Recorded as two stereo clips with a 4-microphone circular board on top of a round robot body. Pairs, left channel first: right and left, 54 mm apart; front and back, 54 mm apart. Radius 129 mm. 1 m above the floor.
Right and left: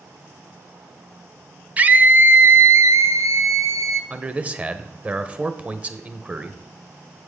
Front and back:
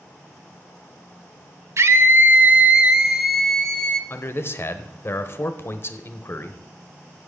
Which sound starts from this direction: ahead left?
A man speaking, at 4.1 s.